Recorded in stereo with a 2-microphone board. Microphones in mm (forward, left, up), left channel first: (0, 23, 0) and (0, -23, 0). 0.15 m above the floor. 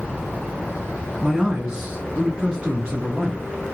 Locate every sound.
1.2 s a man speaking: 10° right (ahead or behind), 1.6 m; by 3.4 s 20° right (ahead or behind), 1.6 m